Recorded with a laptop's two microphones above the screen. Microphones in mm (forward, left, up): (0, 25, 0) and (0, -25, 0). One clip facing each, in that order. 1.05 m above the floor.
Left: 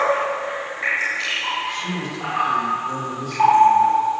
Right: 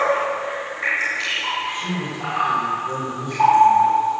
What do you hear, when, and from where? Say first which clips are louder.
1.7 s a man speaking: even; 25° right (ahead or behind), 4.5 m